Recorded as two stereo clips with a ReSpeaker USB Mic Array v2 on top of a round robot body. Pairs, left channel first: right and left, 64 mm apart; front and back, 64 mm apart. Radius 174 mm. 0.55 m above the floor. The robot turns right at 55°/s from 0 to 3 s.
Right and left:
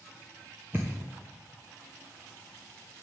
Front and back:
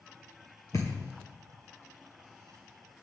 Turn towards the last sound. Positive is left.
turn(degrees=160)